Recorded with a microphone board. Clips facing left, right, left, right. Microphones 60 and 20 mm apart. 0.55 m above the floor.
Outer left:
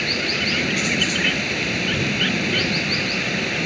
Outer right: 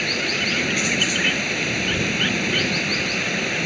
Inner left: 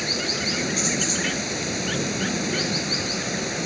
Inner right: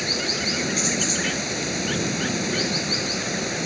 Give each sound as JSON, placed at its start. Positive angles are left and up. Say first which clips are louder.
{"t": 0.0, "sound": "running water", "louder": "even, inner right 1 dB", "side_deg": 0}